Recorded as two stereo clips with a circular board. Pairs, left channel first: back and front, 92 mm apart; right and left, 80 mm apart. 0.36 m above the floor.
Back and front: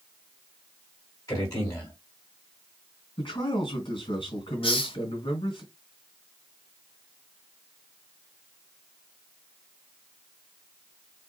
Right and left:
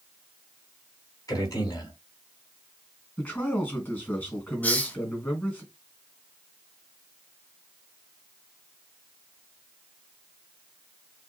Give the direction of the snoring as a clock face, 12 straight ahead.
No snoring in this recording.